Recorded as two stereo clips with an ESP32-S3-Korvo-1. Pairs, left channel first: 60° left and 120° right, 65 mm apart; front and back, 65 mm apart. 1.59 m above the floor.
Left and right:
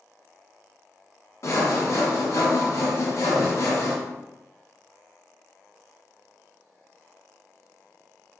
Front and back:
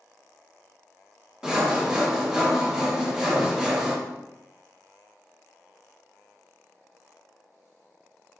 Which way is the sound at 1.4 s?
100° left.